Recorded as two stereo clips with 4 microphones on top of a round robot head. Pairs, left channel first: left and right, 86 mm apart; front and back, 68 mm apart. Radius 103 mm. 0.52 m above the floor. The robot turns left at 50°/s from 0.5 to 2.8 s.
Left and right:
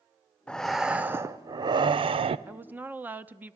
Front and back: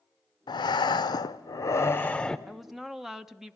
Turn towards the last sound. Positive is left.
turn(degrees=-110)